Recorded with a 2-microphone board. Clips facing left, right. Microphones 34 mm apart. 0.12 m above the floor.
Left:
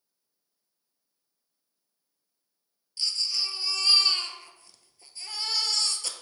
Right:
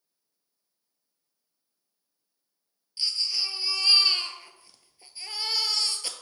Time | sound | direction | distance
3.0 | a baby crying | 15° right (ahead or behind) | 0.7 m